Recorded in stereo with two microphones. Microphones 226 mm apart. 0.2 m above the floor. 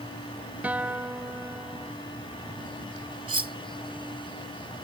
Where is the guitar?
5° right (ahead or behind).